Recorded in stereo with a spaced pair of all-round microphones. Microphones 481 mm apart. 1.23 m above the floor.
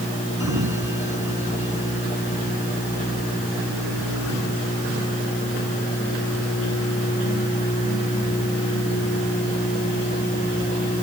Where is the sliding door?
35° right (ahead or behind).